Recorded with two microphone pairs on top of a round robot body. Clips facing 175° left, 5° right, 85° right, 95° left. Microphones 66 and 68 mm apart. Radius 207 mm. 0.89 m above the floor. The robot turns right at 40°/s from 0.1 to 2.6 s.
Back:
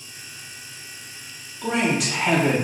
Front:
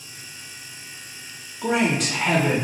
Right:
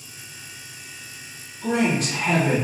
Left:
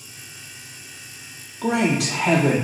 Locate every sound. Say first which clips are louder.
1.6 s a man speaking: front 1 dB, left 1 dB; 70° left, 0.7 m; by 2.5 s 110° left, 0.7 m